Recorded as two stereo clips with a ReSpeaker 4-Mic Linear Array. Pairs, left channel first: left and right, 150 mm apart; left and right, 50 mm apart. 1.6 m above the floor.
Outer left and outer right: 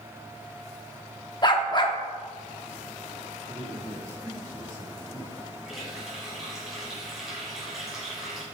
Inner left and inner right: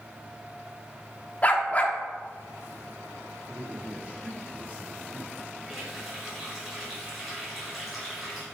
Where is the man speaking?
30° right (ahead or behind), 4 m.